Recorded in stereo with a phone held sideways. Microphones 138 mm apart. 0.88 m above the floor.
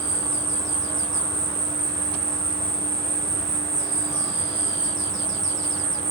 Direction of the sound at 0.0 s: 30° left (ahead or behind).